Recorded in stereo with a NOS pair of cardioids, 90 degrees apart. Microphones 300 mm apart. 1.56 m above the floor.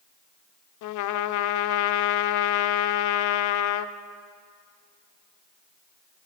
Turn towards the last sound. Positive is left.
turn(degrees=65)